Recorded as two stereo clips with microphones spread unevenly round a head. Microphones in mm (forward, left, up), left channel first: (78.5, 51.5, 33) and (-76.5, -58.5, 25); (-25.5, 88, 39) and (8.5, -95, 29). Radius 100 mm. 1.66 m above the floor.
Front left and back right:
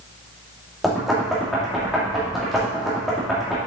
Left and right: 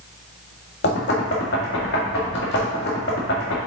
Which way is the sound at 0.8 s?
125° left.